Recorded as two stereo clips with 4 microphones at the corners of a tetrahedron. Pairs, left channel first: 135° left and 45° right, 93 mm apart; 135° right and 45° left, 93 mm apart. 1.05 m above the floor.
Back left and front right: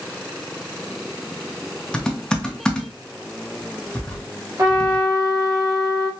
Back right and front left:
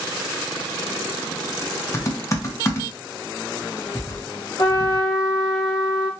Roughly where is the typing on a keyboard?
Behind right.